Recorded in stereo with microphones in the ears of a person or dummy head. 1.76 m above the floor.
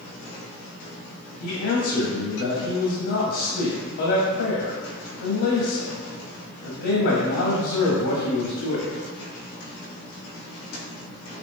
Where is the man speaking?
55° left (ahead or behind), 0.5 m.